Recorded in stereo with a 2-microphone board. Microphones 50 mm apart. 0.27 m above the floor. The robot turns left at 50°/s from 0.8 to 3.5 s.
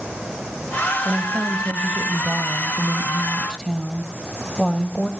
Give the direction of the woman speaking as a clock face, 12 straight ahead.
2 o'clock.